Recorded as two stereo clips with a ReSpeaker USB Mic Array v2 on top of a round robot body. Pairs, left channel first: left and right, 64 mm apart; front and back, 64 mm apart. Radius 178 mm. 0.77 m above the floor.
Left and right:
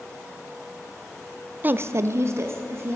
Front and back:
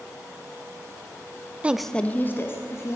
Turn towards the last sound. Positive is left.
turn(degrees=-45)